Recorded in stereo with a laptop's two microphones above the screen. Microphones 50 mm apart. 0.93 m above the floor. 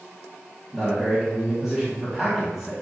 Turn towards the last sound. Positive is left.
turn(degrees=0)  # may be behind; listen again after turning